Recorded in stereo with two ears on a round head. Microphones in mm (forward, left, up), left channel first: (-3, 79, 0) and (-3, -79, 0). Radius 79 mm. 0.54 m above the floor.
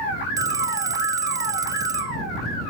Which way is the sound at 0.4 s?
20° right (ahead or behind).